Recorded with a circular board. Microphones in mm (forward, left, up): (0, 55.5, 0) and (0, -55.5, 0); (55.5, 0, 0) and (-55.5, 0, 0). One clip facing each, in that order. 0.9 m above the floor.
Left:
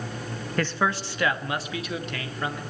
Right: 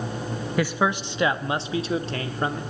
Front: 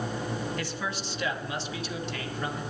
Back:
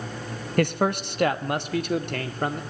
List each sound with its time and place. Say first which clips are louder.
0.6 s a man speaking: right 2 dB, back 11 dB; 170° right, 1.1 m; by 2.6 s 145° right, 2.5 m